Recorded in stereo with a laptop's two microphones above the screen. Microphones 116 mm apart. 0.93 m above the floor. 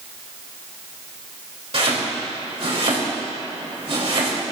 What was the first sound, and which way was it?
Chopping, 55° right (ahead or behind).